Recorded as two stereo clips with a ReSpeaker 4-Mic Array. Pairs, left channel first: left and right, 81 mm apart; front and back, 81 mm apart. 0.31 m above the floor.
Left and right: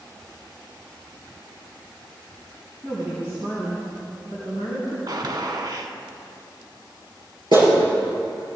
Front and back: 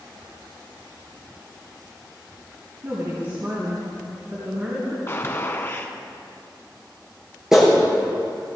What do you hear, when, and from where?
2.8 s a woman speaking: 145° right, 3 m; by 5.0 s 115° right, 3.5 m
5.1 s a gunshot: 55° right, 1.0 m
7.5 s a clap: 95° right, 5 m